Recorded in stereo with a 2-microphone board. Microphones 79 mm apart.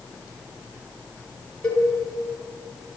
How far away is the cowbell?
About 4 m.